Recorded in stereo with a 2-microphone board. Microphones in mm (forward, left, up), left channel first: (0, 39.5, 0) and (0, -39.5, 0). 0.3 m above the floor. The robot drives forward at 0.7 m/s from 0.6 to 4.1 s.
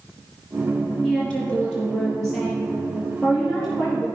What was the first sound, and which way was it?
A woman speaking, 10° left (ahead or behind).